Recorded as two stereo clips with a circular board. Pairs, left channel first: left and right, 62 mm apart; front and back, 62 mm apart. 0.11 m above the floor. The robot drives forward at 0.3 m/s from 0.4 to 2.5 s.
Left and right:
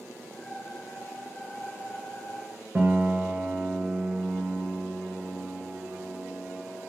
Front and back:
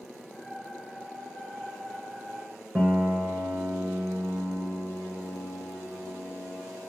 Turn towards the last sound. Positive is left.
turn(degrees=-145)